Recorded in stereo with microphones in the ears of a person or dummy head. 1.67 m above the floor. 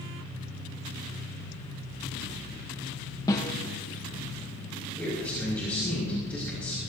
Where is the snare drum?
20° left (ahead or behind), 1.2 m.